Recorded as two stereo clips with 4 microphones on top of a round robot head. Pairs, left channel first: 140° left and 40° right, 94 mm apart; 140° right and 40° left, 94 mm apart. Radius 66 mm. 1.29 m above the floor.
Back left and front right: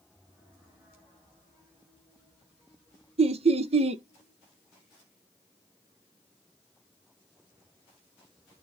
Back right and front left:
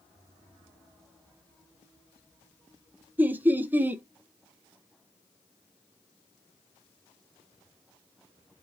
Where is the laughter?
30° right, 0.8 m.